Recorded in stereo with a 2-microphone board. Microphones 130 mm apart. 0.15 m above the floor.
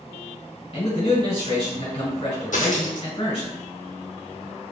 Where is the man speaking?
45° left (ahead or behind), 1.9 m.